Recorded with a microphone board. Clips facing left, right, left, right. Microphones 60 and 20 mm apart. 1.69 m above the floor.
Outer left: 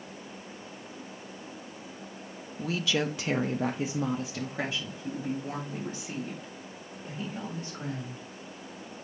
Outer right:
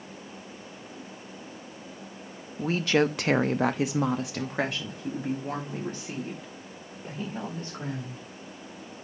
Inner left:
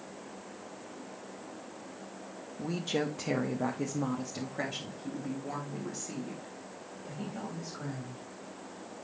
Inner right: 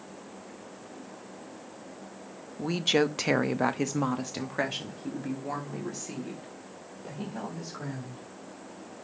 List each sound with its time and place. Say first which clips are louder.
2.6 s a woman speaking: outer right 6 dB, inner right 7 dB; 35° right (ahead or behind), 0.6 m; by 8.2 s 40° right (ahead or behind), 3 m